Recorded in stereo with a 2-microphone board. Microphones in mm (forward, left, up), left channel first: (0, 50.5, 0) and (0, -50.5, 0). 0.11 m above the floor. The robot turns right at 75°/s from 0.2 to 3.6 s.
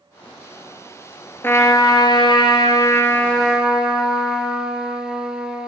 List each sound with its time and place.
1.4 s a trumpet: 30° left, 1.1 m; by 5.7 s 170° right, 1.1 m